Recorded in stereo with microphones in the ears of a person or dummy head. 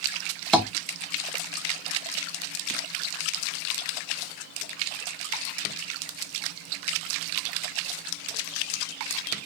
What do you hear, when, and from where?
0.5 s tapping: centre (ahead or behind), 0.6 m